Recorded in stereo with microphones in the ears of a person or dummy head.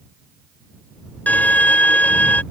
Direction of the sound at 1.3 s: 5° left (ahead or behind).